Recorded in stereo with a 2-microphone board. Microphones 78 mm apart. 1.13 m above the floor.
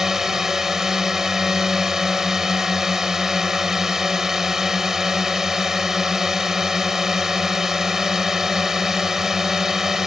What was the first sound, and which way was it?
A drone, 5° right (ahead or behind).